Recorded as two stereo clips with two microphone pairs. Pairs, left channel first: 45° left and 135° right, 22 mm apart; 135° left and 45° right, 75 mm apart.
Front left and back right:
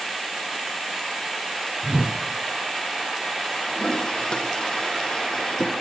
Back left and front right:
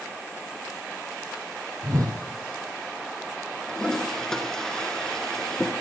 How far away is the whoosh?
About 1.1 m.